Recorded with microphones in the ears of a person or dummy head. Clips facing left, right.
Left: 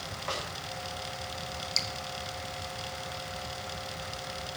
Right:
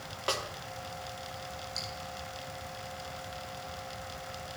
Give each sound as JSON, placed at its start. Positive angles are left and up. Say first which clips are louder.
{"t": 0.3, "sound": "a snare drum", "louder": "right 3 dB", "side_deg": -45, "distance_m": 1.7}
{"t": 1.8, "sound": "dripping", "louder": "left 3 dB", "side_deg": 30, "distance_m": 0.5}